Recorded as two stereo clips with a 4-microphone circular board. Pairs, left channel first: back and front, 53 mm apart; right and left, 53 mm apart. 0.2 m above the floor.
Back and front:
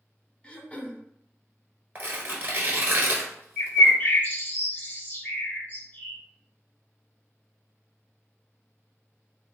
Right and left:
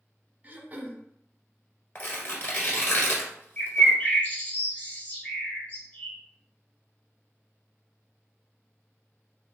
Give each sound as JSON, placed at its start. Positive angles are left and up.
{"t": 0.4, "sound": "throat clearing", "azimuth_deg": 125, "distance_m": 0.7}
{"t": 1.9, "sound": "tearing paper", "azimuth_deg": -50, "distance_m": 1.2}
{"t": 3.6, "sound": "a bird", "azimuth_deg": -140, "distance_m": 1.1}